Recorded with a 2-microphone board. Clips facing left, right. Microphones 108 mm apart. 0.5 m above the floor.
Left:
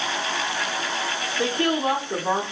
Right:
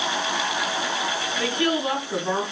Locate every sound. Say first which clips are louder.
1.4 s a woman speaking: left 2 dB; 30° left (ahead or behind), 1.0 m; by 2.4 s 35° left (ahead or behind), 1.4 m